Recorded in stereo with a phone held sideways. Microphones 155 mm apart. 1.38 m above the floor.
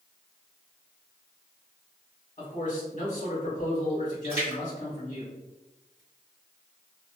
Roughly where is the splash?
Left.